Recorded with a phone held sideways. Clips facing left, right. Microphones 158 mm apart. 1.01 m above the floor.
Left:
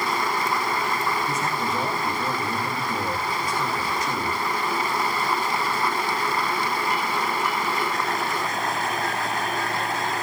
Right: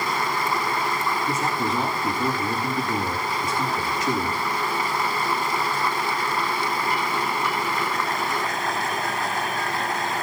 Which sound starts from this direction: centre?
A man speaking, at 1.3 s.